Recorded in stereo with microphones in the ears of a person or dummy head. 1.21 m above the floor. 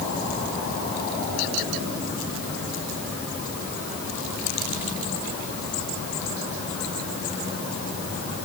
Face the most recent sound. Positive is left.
No sound to turn to.